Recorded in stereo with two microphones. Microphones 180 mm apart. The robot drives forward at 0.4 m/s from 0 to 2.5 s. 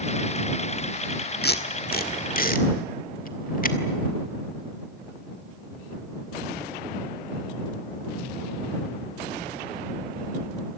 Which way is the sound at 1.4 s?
65° left (ahead or behind).